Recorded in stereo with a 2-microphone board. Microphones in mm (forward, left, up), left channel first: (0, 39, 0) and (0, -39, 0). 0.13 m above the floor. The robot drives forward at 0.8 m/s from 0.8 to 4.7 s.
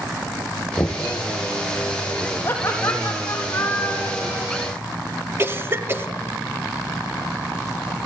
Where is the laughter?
25° left (ahead or behind), 5 m; by 4.5 s 20° left (ahead or behind), 6.5 m.